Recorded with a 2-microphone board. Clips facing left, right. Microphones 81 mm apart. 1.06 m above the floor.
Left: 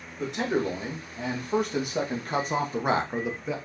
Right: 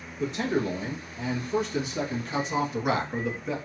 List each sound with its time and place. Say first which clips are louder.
0.2 s a man speaking: even; 65° left (ahead or behind), 2 m; by 3.6 s centre (ahead or behind), 0.7 m